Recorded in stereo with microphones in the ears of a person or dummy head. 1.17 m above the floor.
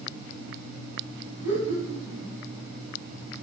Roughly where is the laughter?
Centre.